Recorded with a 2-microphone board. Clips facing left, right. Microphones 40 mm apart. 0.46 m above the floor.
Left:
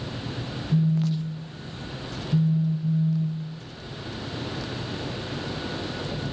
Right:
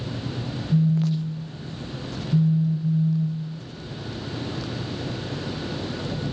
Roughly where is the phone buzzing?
Left.